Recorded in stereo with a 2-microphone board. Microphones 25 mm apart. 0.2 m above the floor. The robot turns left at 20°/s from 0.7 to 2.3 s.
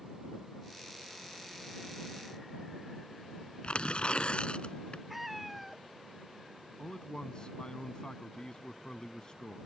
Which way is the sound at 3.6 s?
50° left (ahead or behind).